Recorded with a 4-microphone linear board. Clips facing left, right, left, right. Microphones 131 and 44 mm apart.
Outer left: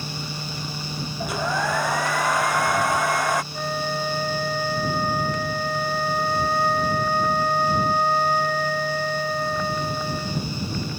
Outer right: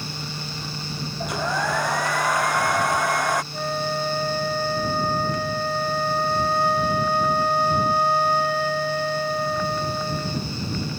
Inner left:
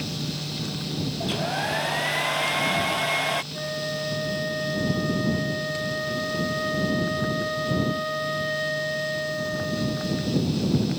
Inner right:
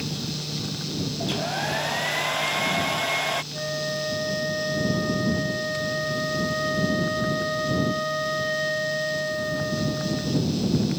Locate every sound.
1.2 s a hair dryer: centre (ahead or behind)
3.5 s a flute: 5° right (ahead or behind)